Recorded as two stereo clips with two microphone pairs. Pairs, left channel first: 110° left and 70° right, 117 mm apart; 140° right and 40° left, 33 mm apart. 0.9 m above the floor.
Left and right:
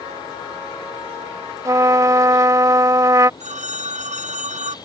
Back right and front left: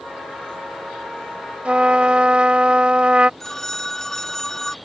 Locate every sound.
1.6 s a trumpet: 10° right
3.4 s a phone ringing: 65° right